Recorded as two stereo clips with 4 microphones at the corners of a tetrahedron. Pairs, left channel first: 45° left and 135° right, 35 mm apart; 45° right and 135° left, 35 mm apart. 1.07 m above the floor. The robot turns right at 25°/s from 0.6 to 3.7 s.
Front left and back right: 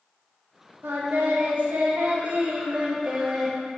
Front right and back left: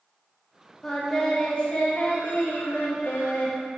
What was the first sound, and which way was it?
Singing, 125° right.